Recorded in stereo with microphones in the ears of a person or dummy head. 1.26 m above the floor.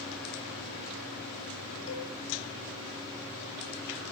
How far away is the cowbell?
About 7.5 m.